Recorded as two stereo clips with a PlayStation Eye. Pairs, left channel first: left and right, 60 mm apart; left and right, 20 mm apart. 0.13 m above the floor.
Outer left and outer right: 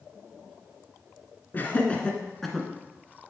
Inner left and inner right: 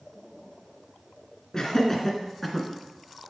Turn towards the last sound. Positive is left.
turn(degrees=-5)  # may be behind; listen again after turning